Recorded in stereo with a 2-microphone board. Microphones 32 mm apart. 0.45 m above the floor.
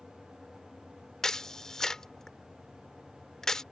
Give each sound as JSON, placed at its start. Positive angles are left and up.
{"t": 1.2, "sound": "a camera shutter", "side_deg": 20}